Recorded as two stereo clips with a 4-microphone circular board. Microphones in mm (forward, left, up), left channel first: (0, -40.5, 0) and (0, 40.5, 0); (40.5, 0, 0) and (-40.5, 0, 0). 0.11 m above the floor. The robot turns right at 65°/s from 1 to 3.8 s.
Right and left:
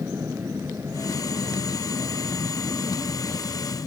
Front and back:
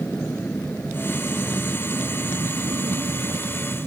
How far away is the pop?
I don't hear a pop.